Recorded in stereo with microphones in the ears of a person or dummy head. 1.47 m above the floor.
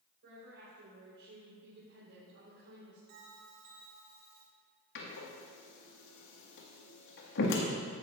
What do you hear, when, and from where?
0.2 s a woman speaking: 55° right (ahead or behind), 4.5 m
3.1 s a bell: 60° right (ahead or behind), 3 m
5.0 s a door slam: 60° left (ahead or behind), 1.9 m